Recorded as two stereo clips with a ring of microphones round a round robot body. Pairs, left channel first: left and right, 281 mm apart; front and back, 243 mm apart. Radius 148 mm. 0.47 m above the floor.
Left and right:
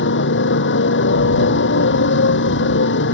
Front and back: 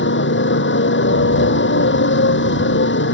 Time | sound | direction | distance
0.0 | a motorcycle | 40° left | ?